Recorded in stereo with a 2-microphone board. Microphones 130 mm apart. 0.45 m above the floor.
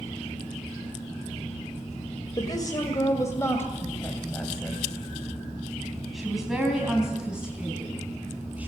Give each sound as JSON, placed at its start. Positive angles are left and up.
{"t": 2.4, "sound": "a woman speaking", "side_deg": 35, "distance_m": 2.5}